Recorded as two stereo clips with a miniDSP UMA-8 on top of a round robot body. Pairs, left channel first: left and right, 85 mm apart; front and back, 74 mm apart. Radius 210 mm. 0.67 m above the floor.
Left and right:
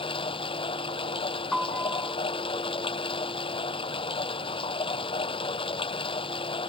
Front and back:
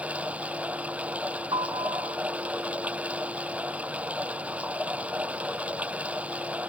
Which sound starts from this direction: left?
Running water, at 0.0 s.